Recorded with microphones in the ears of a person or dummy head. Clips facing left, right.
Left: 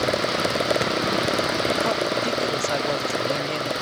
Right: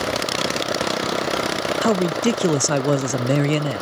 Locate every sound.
1.8 s a man speaking: 55° right (ahead or behind)